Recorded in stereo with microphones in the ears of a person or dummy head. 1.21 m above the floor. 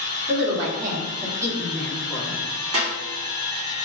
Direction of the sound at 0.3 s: 60° right (ahead or behind).